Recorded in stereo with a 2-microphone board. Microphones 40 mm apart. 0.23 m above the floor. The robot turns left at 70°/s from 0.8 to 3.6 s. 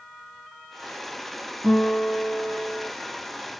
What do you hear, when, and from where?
1.6 s a guitar: 140° right, 3 m; by 2.9 s 135° left, 3 m